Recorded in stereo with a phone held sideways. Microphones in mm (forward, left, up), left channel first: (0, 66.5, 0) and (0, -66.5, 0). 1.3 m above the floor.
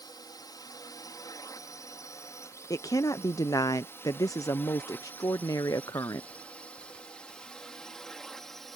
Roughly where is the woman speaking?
Left.